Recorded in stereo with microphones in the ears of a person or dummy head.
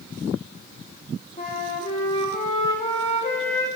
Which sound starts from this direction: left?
A flute, at 1.4 s.